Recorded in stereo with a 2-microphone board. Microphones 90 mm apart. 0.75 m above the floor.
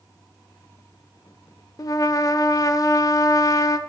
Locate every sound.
1.8 s a trumpet: 40° left (ahead or behind), 0.5 m